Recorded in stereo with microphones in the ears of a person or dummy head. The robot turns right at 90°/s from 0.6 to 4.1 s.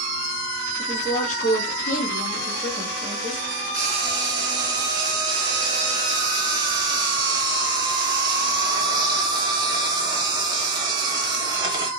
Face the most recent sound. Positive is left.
turn(degrees=-30)